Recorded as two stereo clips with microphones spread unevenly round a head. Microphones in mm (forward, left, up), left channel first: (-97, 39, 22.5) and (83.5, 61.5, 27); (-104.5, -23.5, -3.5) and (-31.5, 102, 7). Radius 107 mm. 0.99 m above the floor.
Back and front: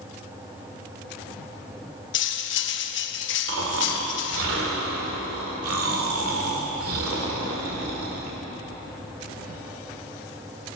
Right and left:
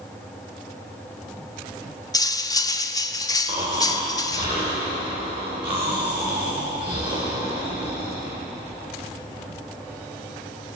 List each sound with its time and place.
2.1 s cutlery clinking: 170° left, 0.7 m
3.5 s snoring: 10° right, 2 m